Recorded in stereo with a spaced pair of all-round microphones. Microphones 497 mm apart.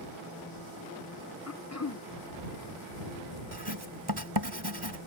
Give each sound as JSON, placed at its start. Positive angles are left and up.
{"t": 1.5, "sound": "throat clearing", "side_deg": 30}
{"t": 3.5, "sound": "writing", "side_deg": -50}